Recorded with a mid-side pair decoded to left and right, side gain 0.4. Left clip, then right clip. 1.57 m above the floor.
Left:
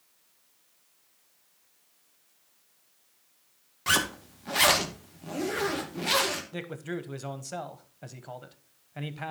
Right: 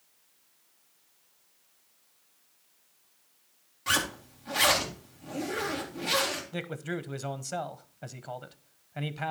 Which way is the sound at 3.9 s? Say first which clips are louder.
Left 2 dB; 45° left.